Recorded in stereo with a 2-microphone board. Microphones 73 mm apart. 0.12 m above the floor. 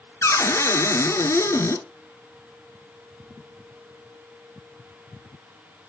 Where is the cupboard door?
45° left (ahead or behind), 1.0 m.